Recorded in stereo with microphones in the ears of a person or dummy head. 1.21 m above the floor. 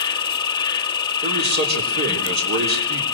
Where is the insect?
25° left (ahead or behind), 0.8 m.